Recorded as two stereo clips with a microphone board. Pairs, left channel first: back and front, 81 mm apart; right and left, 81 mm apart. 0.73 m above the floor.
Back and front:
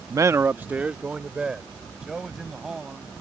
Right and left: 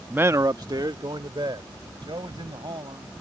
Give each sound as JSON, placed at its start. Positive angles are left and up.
{"t": 0.1, "sound": "a man speaking", "azimuth_deg": 20}